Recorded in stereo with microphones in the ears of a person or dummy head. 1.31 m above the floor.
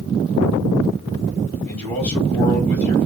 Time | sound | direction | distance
1.6 | a man speaking | 15° left (ahead or behind) | 2 m